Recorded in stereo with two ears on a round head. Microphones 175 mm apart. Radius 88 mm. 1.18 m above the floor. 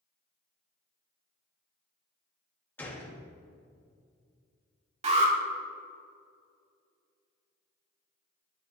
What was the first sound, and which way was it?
A gunshot, 10° left (ahead or behind).